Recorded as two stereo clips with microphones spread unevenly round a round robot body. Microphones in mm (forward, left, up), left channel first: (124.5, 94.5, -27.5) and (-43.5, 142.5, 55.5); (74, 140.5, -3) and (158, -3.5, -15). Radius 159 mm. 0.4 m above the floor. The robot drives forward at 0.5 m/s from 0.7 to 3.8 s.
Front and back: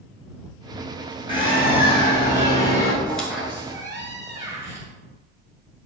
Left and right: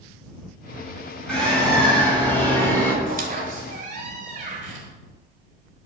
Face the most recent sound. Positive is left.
turn(degrees=-100)